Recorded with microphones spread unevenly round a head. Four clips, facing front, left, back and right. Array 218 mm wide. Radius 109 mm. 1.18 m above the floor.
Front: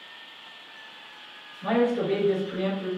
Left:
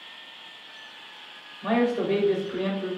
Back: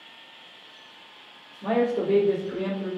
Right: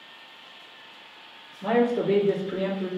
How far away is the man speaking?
About 2.5 m.